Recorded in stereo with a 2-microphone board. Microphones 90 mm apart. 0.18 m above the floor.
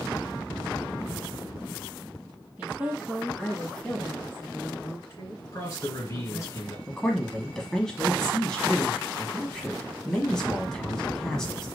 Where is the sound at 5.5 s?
40° left (ahead or behind), 2.5 m.